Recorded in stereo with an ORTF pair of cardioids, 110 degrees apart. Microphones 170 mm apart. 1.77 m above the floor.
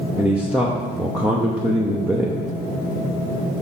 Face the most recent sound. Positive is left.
turn(degrees=-5)